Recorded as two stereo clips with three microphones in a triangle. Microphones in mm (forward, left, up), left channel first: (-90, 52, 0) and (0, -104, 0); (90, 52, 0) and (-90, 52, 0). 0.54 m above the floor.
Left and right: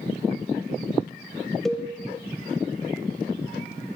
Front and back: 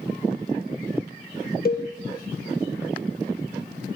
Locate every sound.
1.6 s a cowbell: 30° left, 0.5 m